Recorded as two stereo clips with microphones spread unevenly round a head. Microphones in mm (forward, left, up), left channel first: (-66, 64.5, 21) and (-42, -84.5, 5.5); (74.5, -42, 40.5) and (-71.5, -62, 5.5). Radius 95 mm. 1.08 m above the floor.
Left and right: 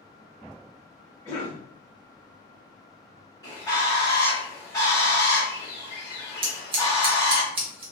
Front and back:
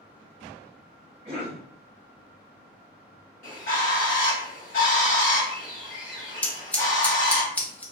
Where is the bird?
30° left, 1.1 m.